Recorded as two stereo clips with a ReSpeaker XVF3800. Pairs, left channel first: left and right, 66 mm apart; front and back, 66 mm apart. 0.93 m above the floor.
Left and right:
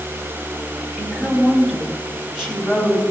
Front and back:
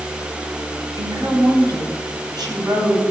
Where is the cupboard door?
No cupboard door in this recording.